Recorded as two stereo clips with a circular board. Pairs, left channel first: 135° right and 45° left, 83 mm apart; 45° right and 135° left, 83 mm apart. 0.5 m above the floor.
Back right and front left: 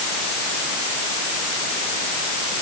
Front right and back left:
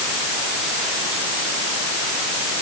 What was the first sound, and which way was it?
Only background noise.